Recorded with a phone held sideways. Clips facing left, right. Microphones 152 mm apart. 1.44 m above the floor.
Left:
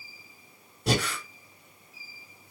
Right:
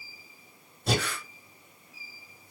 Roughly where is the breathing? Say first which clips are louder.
Left 2 dB; left.